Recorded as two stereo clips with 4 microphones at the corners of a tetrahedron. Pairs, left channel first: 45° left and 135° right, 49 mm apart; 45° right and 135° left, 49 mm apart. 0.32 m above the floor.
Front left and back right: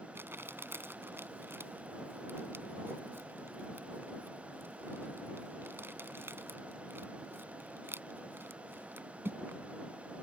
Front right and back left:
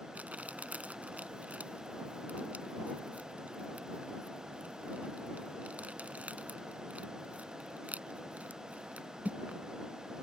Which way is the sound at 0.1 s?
170° right.